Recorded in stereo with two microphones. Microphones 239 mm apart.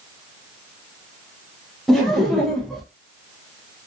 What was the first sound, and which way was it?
Laughter, centre (ahead or behind).